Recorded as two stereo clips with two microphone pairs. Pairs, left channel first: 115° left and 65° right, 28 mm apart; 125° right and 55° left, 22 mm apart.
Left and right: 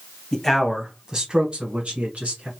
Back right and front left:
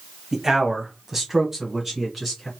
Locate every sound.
0.3 s a man speaking: 90° left, 1.0 m; by 2.5 s 25° right, 2 m